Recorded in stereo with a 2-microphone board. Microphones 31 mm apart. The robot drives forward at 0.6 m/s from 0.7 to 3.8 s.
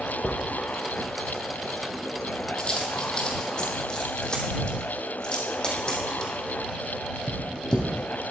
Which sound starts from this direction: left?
A dropped coin, at 0.2 s.